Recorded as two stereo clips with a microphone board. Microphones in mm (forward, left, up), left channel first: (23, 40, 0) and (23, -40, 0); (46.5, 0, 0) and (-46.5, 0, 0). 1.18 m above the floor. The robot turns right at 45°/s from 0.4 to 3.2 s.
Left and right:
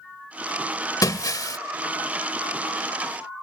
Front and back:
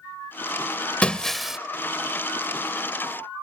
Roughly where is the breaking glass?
Left.